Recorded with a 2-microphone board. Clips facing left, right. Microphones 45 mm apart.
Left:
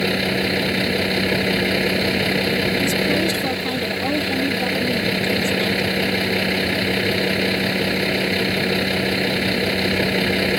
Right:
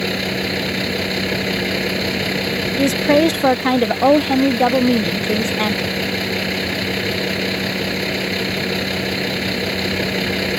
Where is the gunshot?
I don't hear a gunshot.